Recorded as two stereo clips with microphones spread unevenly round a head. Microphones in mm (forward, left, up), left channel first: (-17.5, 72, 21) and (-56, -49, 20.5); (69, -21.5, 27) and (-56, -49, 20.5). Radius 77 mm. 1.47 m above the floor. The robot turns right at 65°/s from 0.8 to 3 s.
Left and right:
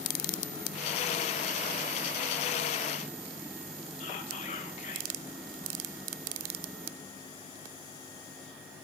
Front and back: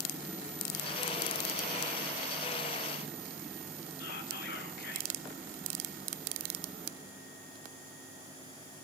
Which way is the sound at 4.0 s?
20° left.